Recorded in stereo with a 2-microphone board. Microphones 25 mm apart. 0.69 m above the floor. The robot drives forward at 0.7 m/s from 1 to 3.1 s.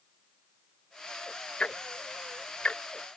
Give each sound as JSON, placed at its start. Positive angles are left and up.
{"t": 1.6, "sound": "ticking", "side_deg": 55}